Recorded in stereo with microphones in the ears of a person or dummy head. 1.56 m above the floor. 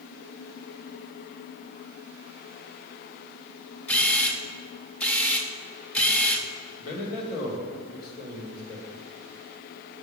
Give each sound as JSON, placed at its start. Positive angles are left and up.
{"t": 3.9, "sound": "a camera shutter", "side_deg": 10, "distance_m": 0.7}
{"t": 6.8, "sound": "a man speaking", "side_deg": 50, "distance_m": 1.9}